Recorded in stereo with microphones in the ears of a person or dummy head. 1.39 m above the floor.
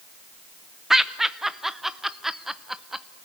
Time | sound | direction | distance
0.9 | laughter | 5° right (ahead or behind) | 0.8 m